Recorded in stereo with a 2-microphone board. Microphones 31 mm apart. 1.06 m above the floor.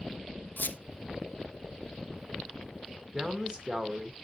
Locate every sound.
0.6 s a squeak: 70° left (ahead or behind), 0.5 m
3.1 s a man speaking: 30° right (ahead or behind), 1.0 m